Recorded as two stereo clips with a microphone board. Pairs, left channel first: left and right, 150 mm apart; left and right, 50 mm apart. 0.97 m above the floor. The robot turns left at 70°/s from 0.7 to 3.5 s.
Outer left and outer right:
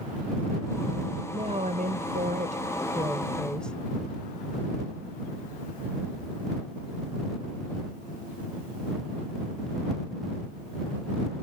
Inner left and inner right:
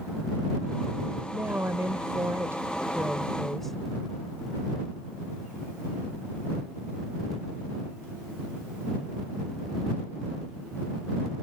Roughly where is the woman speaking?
Ahead right.